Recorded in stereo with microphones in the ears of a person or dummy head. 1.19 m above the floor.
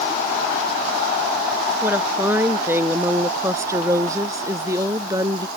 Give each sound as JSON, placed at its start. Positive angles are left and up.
{"t": 1.8, "sound": "a woman speaking", "side_deg": -15}